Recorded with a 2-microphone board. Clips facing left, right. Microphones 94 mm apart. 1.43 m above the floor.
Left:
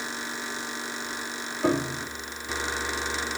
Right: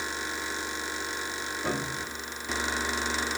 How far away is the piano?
About 3 m.